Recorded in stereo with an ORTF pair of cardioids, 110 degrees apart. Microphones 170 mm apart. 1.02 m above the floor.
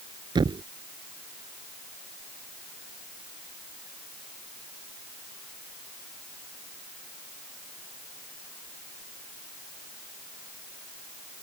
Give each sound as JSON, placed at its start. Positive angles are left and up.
{"t": 0.3, "sound": "a thud", "azimuth_deg": -30}